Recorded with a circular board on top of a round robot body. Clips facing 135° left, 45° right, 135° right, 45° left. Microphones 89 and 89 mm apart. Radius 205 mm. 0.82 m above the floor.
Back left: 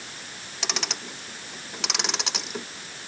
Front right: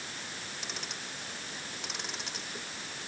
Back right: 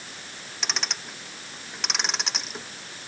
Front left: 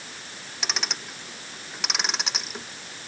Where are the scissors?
I don't hear scissors.